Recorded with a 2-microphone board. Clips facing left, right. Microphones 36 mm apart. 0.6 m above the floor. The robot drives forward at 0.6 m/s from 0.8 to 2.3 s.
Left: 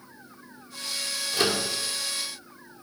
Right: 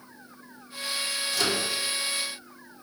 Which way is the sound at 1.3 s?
30° left (ahead or behind).